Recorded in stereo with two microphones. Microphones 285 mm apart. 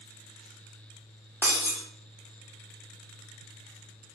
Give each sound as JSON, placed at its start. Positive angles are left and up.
{"t": 1.4, "sound": "breaking glass", "side_deg": -5, "distance_m": 1.5}